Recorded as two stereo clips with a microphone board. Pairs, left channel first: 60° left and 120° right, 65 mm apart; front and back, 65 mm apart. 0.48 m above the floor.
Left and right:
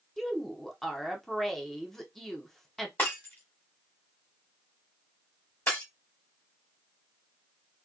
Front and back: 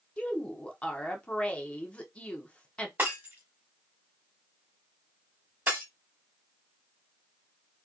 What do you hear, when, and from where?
0.2 s a woman speaking: 25° right, 1.0 m
3.0 s breaking glass: 115° left, 2 m